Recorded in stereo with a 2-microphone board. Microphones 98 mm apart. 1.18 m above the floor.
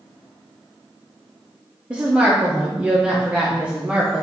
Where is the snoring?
I don't hear snoring.